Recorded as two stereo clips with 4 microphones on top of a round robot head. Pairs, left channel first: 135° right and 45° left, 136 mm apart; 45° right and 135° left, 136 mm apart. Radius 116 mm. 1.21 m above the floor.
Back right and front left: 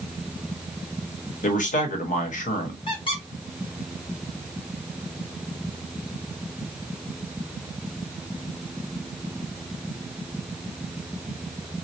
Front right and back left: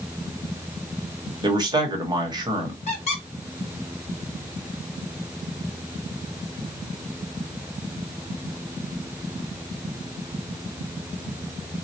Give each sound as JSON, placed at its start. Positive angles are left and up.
{"t": 1.4, "sound": "a man speaking", "azimuth_deg": -165, "distance_m": 1.1}
{"t": 2.9, "sound": "a squeak", "azimuth_deg": -85, "distance_m": 1.4}